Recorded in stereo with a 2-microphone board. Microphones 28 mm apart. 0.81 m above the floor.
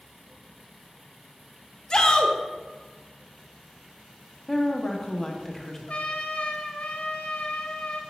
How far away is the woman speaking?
About 0.6 m.